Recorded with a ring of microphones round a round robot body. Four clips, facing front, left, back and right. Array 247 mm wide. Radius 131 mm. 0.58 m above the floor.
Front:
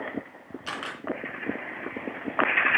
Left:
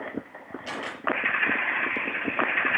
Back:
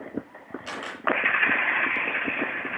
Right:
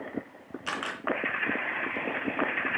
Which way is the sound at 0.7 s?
65° right.